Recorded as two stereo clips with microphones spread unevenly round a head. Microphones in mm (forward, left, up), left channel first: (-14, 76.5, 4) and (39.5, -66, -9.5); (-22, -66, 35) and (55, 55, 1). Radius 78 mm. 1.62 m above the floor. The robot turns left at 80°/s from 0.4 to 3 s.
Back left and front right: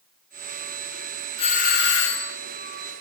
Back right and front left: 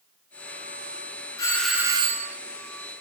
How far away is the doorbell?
About 1.5 m.